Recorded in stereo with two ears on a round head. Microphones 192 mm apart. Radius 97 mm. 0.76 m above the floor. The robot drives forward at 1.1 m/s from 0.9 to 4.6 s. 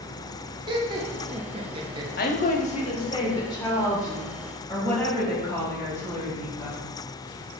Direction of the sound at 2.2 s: 45° left (ahead or behind).